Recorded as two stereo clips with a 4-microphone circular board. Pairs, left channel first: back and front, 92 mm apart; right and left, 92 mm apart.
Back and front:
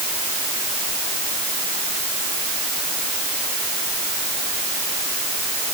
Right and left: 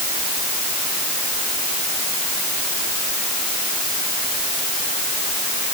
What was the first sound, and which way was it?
Only background noise.